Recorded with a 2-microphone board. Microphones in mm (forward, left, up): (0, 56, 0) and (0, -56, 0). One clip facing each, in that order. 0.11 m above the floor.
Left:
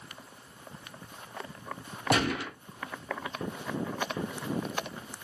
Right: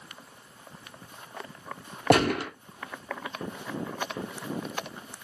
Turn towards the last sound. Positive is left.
turn(degrees=-60)  # may be behind; listen again after turning